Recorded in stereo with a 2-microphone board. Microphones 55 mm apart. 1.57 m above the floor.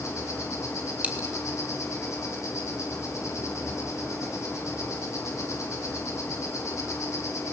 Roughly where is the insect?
Left.